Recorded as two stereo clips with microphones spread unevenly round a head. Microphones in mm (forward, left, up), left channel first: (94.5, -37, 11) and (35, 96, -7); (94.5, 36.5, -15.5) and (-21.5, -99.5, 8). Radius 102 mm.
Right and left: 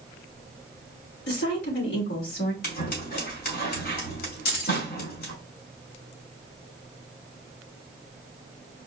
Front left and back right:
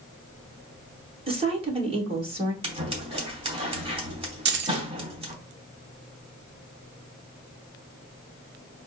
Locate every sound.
1.3 s a woman speaking: 70° right, 2 m
2.6 s scissors: 75° right, 2.5 m
4.5 s keys jangling: 105° right, 0.9 m